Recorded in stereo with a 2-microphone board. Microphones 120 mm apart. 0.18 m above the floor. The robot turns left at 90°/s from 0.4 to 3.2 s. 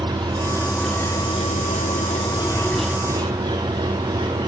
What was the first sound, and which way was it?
An engine running, 145° right.